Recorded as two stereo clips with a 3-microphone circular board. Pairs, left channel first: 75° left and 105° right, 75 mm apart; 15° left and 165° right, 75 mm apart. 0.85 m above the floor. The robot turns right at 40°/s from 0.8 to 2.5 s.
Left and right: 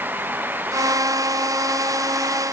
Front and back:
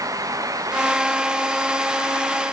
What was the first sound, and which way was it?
Only background noise.